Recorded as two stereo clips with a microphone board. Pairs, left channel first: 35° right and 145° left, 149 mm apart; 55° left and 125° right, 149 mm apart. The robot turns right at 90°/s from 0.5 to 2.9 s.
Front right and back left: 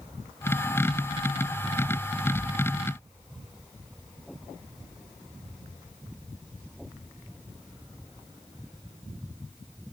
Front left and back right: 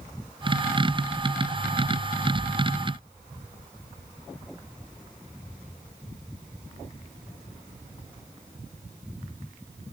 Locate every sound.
Only background noise.